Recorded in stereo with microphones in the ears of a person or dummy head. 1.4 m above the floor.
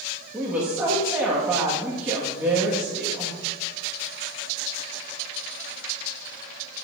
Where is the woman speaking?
10° right (ahead or behind), 1.8 m.